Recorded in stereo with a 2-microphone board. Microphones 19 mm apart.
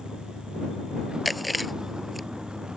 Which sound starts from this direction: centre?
Chewing, at 1.2 s.